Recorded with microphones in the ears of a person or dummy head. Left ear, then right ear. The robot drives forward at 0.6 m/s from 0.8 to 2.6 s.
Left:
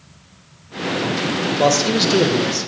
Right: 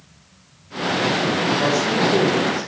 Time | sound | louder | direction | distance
1.6 | a man speaking | left 7 dB | 50° left (ahead or behind) | 2.5 m